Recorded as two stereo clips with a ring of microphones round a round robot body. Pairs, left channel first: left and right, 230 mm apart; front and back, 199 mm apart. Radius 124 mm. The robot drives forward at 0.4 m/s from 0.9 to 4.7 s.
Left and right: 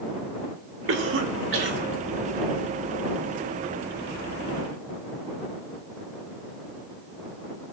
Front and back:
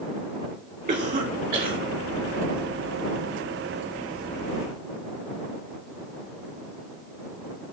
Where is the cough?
120° right, 2.5 m; by 1.8 s 130° right, 3 m.